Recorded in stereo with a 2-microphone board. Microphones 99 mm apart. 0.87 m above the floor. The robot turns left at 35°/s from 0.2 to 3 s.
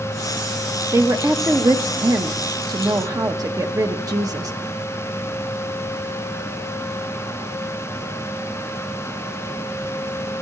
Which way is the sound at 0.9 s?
45° right.